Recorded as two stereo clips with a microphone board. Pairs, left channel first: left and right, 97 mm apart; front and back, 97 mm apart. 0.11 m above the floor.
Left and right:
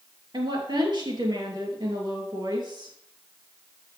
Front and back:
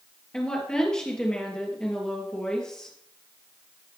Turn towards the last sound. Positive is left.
turn(degrees=-80)